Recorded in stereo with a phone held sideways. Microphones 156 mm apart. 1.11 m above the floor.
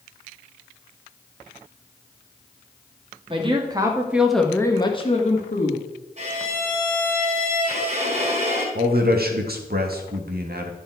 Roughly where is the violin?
Right.